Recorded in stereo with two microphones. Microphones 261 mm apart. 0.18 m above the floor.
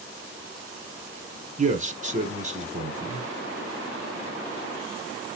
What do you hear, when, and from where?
1.6 s a man speaking: 30° right (ahead or behind), 1.3 m